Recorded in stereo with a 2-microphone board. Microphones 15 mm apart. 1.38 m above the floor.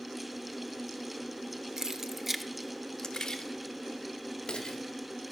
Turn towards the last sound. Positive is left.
turn(degrees=75)  # may be behind; listen again after turning